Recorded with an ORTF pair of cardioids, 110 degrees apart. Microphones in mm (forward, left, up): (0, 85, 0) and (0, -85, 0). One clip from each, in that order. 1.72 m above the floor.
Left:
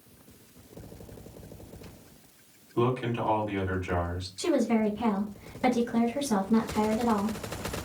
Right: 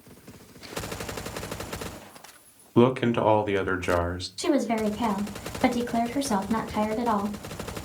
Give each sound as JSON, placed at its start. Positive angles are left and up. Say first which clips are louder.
{"t": 2.8, "sound": "a man speaking", "louder": "right 7 dB", "azimuth_deg": -70, "distance_m": 0.7}
{"t": 4.4, "sound": "a woman speaking", "louder": "right 1 dB", "azimuth_deg": -30, "distance_m": 1.0}